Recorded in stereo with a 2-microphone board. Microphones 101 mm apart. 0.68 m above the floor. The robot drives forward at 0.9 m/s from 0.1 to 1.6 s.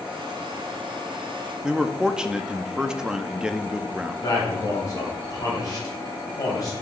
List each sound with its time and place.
1.6 s a man speaking: 10° right (ahead or behind), 0.5 m
4.2 s a man speaking: 40° left (ahead or behind), 3 m